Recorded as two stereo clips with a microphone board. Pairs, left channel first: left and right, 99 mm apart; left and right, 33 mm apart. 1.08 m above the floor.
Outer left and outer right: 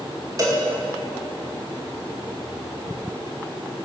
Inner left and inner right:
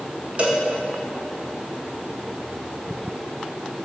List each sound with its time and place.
0.4 s a cowbell: 35° right (ahead or behind), 1.7 m